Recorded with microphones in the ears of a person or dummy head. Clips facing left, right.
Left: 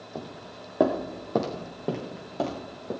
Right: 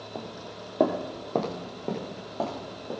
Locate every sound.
0.1 s footsteps: 5° left (ahead or behind), 1.8 m; by 2.9 s 20° left (ahead or behind), 4 m